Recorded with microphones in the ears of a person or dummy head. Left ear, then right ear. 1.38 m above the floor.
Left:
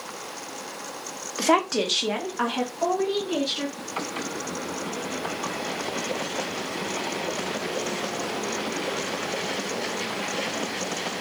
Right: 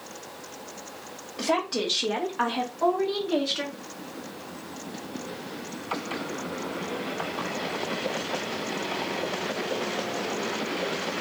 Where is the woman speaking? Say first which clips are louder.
Left 5 dB; 60° left (ahead or behind), 0.8 m; by 3.7 s 20° right (ahead or behind), 2 m.